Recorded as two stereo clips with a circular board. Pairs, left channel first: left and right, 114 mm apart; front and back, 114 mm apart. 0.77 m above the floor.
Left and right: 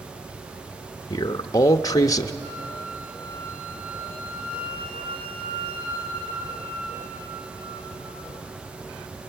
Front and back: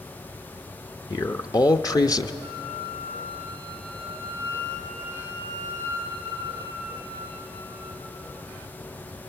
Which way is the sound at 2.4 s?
115° right.